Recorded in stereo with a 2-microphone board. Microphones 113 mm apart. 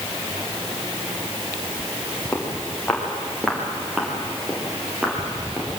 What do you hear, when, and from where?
2.3 s footsteps: 10° left (ahead or behind), 6 m; by 5.7 s 10° right (ahead or behind), 8.5 m